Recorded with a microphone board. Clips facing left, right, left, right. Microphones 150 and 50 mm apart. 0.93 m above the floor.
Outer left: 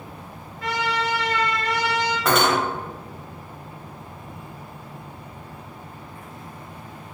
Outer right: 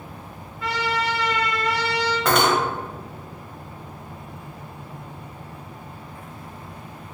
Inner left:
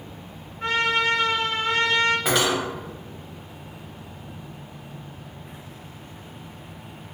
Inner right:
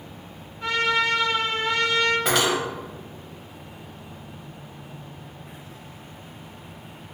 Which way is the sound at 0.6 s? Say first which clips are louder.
Even, even; 35° left (ahead or behind).